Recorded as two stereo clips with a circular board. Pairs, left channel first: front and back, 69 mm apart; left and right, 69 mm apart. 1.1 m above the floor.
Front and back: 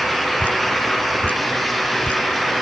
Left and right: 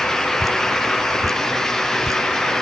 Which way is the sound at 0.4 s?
70° right.